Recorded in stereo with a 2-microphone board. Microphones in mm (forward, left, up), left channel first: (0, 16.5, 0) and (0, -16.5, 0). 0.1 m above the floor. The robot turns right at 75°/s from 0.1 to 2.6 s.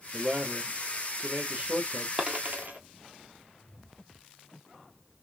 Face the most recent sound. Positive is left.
turn(degrees=-50)  # may be behind; listen again after turning